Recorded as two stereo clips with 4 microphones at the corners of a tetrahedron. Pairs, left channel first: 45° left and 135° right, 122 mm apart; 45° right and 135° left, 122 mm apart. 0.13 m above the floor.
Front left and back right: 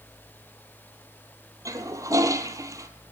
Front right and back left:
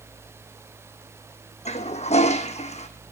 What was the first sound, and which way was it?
A toilet flushing, 70° right.